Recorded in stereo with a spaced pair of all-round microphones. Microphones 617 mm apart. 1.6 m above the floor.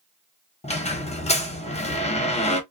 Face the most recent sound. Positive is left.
turn(degrees=10)  # may be behind; listen again after turning